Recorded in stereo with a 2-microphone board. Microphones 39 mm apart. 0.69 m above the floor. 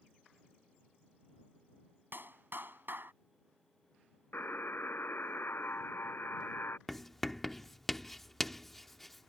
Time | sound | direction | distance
2.1 | a clap | 55° right (ahead or behind) | ?
4.3 | a buzzer | 65° left (ahead or behind) | ?
6.9 | writing | 5° left (ahead or behind) | ?